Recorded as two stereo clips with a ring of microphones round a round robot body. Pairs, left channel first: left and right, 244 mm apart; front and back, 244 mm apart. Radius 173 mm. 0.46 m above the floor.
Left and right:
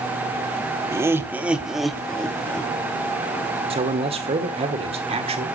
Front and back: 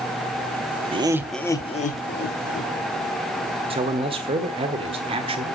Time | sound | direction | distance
0.9 | laughter | 155° right | 0.8 m
3.7 | a man speaking | 135° right | 1.3 m